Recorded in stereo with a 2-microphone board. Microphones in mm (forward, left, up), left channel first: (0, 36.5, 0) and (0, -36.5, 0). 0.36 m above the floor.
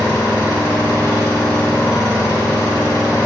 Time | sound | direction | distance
0.0 | an engine running | 65° left (ahead or behind) | 3 m